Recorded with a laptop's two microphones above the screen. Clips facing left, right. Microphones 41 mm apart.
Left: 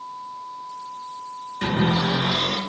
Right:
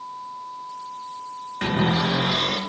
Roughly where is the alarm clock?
I don't hear an alarm clock.